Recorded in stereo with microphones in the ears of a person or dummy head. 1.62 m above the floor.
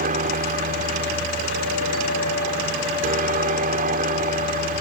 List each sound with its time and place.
0.0 s a helicopter: 40° right (ahead or behind)